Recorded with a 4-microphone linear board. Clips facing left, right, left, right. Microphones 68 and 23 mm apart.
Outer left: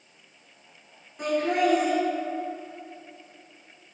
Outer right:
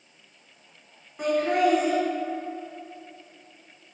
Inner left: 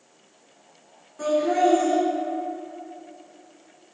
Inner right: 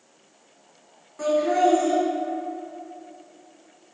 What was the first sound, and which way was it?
Laughter, 45° right (ahead or behind).